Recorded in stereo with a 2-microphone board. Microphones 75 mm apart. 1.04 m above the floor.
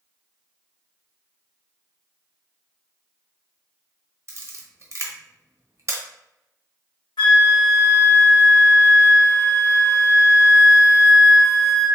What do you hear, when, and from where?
4.3 s a camera shutter: 40° right (ahead or behind), 0.5 m
7.2 s a flute: 75° left (ahead or behind), 1.0 m